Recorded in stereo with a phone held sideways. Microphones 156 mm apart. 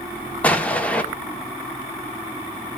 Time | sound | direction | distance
0.4 | an explosion | 10° left (ahead or behind) | 1.6 m